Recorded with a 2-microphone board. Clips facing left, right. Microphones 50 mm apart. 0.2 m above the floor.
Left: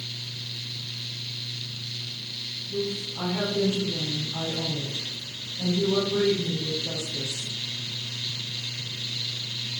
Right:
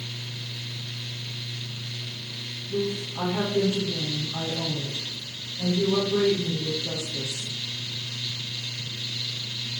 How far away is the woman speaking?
About 5.5 m.